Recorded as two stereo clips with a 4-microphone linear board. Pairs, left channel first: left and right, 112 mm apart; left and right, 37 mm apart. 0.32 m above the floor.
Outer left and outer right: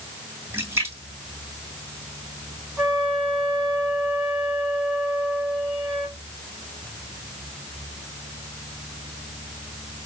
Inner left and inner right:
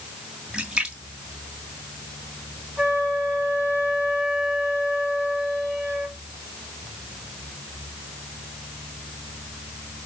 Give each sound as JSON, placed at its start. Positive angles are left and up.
{"t": 0.5, "sound": "a splash", "side_deg": -25, "distance_m": 2.5}
{"t": 2.8, "sound": "a flute", "side_deg": -10, "distance_m": 4.0}